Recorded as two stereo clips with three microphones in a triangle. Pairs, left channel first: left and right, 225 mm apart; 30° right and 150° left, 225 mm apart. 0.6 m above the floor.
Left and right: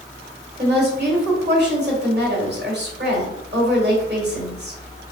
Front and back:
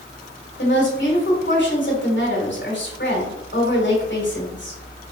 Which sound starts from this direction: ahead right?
A woman speaking, at 0.6 s.